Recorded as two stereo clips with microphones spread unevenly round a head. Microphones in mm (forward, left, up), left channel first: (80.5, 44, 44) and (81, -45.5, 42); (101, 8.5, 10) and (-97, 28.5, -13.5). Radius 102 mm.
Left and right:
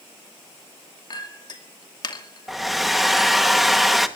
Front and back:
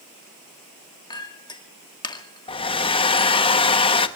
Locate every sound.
1.1 s a clink: 60° left, 2 m
2.5 s a hair dryer: straight ahead, 1.1 m